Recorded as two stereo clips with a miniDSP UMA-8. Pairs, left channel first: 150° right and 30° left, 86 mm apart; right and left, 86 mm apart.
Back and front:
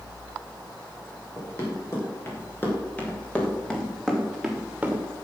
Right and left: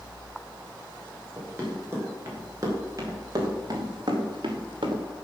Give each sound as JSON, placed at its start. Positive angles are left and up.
{"t": 1.4, "sound": "running footsteps", "azimuth_deg": 155, "distance_m": 5.5}